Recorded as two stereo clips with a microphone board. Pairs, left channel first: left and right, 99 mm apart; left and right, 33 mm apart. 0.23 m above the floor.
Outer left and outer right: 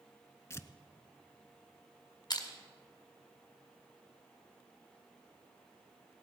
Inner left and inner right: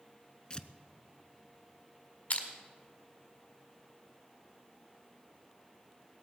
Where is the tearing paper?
30° left (ahead or behind), 0.5 m.